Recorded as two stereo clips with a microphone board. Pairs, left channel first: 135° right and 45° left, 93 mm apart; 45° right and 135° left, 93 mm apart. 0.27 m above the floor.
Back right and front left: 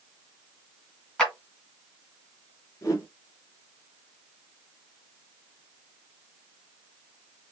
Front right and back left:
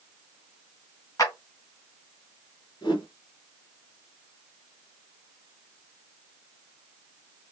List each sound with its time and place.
1.2 s a clap: 55° right, 1.5 m
2.8 s a whoosh: 80° right, 1.0 m